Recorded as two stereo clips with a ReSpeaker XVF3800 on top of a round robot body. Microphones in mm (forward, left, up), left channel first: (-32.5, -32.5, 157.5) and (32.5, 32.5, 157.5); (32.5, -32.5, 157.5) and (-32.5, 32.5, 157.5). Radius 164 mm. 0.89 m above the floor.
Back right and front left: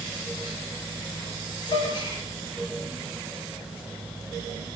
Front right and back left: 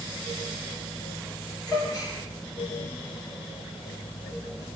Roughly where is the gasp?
Right.